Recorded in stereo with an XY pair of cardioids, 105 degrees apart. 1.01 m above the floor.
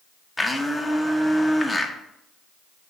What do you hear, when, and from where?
0.4 s a blender: 20° left, 0.9 m